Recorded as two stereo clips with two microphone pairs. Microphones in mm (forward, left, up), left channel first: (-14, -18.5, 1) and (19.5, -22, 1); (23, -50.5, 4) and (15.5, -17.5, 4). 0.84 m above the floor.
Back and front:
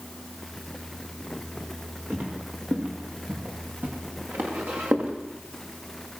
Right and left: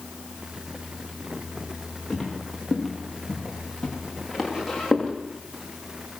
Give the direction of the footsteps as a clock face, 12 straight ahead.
11 o'clock.